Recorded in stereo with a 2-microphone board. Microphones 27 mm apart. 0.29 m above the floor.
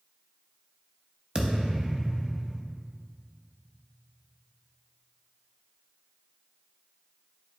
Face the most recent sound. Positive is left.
turn(degrees=-40)  # may be behind; listen again after turning